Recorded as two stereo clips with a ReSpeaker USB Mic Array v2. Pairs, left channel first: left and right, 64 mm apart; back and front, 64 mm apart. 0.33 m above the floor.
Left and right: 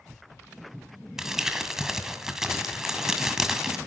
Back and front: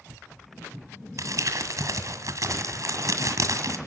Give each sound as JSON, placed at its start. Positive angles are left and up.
{"t": 1.2, "sound": "crumpling", "azimuth_deg": -10, "distance_m": 1.9}